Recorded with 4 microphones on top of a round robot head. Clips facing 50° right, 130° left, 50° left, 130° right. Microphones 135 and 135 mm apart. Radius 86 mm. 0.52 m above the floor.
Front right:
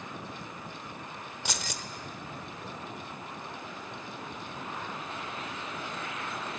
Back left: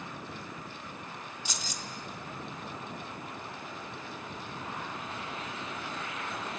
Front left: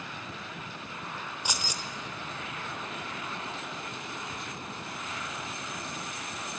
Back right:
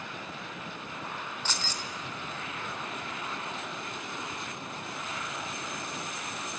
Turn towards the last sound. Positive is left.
turn(degrees=-25)